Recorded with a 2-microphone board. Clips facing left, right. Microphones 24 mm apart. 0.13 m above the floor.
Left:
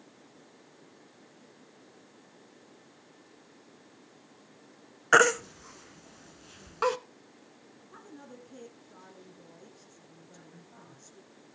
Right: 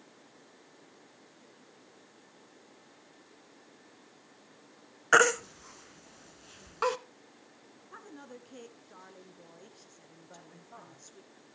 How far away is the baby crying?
About 0.5 m.